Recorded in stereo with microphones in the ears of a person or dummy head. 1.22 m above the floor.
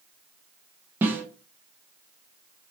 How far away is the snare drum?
About 0.6 m.